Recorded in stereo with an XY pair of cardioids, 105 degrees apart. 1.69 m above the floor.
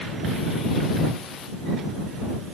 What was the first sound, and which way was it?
Only background noise.